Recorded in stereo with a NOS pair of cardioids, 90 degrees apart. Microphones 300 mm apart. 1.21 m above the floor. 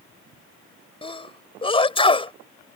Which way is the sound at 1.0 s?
15° left.